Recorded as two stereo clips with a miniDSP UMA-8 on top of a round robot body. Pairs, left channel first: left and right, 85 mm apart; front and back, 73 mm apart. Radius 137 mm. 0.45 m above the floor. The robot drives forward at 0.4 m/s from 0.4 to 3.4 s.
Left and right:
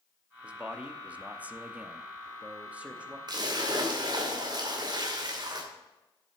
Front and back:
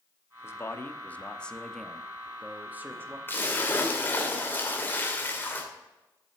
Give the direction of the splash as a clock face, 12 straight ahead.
2 o'clock.